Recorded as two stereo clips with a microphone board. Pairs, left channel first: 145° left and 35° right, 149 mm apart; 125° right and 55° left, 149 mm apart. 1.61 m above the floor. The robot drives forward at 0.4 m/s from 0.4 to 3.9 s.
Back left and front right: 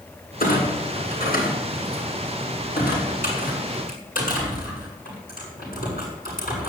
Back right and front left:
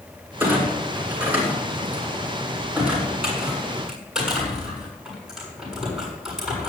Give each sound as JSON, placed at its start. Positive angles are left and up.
{"t": 0.4, "sound": "a clunk", "azimuth_deg": 135, "distance_m": 6.0}